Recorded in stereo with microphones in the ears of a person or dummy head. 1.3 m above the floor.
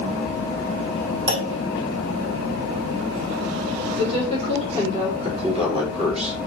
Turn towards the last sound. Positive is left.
turn(degrees=-35)  # may be behind; listen again after turning